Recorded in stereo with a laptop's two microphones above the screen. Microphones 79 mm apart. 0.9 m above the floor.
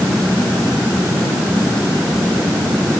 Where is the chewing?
I don't hear chewing.